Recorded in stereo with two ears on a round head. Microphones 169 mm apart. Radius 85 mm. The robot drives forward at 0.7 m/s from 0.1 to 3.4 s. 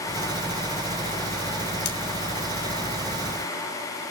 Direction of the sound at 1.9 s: 60° left (ahead or behind).